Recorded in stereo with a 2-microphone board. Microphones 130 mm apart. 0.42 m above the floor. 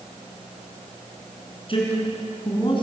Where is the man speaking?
45° left (ahead or behind), 6 m; by 2.8 s 40° left (ahead or behind), 4.5 m.